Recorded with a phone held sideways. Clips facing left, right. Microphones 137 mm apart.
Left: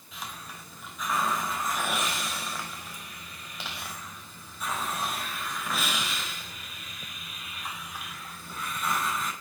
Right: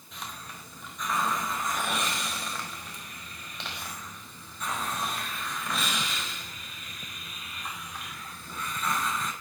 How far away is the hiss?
About 4.5 m.